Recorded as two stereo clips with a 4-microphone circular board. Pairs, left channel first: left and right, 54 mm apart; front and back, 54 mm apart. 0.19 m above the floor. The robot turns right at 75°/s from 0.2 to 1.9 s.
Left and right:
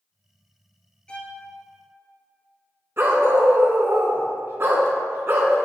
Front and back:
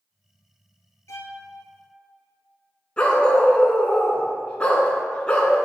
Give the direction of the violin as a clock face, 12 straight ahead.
11 o'clock.